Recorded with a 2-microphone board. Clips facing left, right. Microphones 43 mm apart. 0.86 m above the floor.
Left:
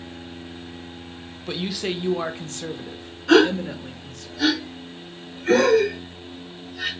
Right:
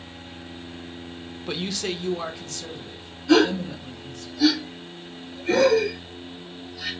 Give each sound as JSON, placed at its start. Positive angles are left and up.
{"t": 1.5, "sound": "a man speaking", "side_deg": -5, "distance_m": 0.6}
{"t": 3.3, "sound": "a gasp", "side_deg": 75, "distance_m": 3.0}